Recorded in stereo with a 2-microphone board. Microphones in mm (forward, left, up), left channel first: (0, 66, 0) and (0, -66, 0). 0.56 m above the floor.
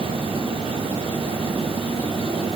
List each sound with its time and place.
Only background noise.